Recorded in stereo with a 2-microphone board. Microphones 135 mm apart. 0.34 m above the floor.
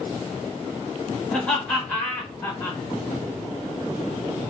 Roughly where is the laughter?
Centre.